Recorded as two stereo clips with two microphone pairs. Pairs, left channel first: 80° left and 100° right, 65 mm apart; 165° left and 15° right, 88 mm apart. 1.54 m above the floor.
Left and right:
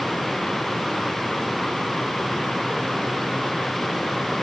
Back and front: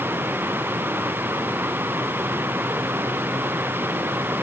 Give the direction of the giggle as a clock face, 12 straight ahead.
No giggle in this recording.